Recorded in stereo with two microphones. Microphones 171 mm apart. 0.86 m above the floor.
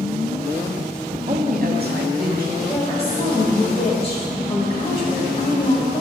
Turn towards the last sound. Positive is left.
turn(degrees=35)  # may be behind; listen again after turning